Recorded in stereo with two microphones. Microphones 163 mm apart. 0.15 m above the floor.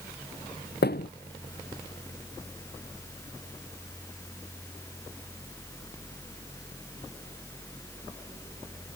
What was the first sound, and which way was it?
A thud, 90° left.